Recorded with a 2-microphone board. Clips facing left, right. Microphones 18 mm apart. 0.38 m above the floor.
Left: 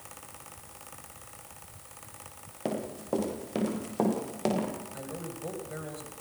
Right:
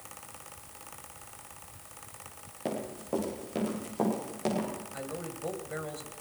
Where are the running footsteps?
20° left (ahead or behind), 8 m; by 4.7 s 25° left (ahead or behind), 9 m.